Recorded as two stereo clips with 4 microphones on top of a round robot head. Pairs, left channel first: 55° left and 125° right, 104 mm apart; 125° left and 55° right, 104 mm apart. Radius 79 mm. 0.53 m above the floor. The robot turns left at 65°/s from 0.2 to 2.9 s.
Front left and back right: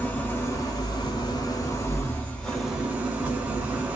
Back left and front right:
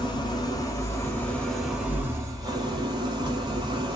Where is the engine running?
120° left, 1.1 m; by 4.0 s 55° right, 1.1 m.